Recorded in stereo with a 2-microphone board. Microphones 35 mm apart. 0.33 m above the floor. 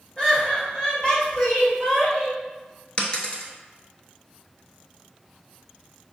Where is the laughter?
25° left (ahead or behind), 1.5 m; by 2.4 s 35° left (ahead or behind), 1.7 m.